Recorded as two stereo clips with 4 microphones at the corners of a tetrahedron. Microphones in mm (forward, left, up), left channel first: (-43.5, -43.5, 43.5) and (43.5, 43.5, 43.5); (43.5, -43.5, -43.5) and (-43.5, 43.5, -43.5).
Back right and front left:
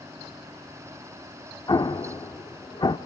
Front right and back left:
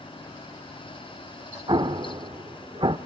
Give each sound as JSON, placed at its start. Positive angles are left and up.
{"t": 1.7, "sound": "an explosion", "azimuth_deg": 175, "distance_m": 0.7}